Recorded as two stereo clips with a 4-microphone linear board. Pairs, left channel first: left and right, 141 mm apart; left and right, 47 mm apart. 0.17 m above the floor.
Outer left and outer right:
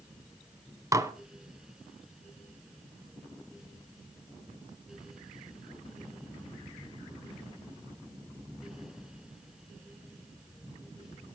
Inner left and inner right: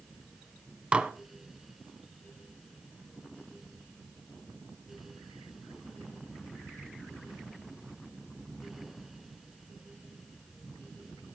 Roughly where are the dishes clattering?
Right.